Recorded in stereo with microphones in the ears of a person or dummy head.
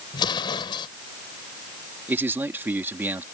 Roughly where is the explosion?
Left.